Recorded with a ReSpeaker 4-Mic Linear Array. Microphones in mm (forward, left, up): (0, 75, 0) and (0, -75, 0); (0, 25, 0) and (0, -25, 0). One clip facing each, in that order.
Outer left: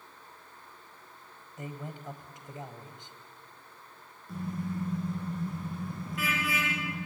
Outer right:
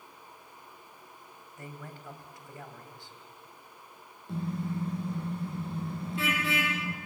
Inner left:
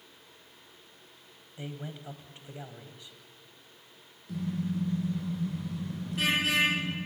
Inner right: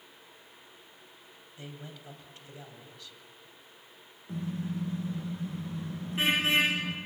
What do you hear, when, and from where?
1.6 s a man speaking: 20° left (ahead or behind), 2.5 m
4.3 s a car horn: 25° right (ahead or behind), 7.5 m